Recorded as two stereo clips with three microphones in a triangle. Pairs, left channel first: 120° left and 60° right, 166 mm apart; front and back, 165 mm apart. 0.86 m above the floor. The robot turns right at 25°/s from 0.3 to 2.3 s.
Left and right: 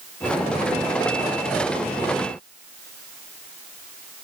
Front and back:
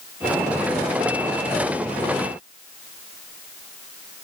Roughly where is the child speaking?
No child speaking in this recording.